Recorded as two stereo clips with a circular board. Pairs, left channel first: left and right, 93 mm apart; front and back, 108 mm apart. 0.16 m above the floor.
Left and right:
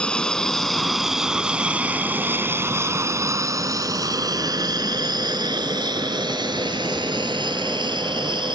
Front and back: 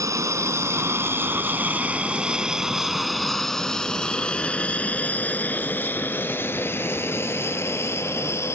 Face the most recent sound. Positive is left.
turn(degrees=-60)